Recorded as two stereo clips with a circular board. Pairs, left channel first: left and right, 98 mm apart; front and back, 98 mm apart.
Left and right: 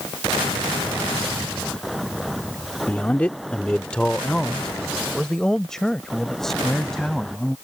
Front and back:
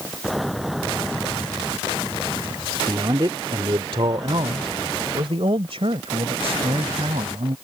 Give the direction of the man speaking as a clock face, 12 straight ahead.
7 o'clock.